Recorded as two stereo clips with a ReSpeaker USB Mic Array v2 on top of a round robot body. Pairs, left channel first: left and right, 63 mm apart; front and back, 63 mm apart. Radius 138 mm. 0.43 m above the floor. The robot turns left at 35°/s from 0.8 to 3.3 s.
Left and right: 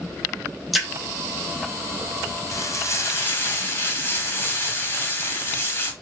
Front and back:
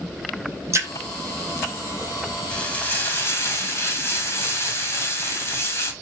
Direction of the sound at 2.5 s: 70° left.